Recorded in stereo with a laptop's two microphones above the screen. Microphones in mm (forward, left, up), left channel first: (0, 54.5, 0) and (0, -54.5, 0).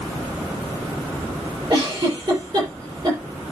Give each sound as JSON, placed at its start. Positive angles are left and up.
{"t": 1.7, "sound": "a giggle", "side_deg": -45, "distance_m": 6.0}